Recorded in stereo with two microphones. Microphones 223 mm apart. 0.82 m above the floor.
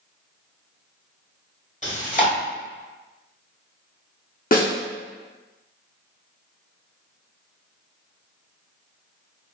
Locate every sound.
1.8 s chewing: 35° left (ahead or behind), 1.4 m
4.5 s a snare drum: 45° left (ahead or behind), 0.7 m